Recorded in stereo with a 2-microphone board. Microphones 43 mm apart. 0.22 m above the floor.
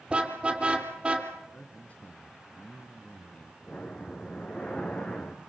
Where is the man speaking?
35° left (ahead or behind), 2 m.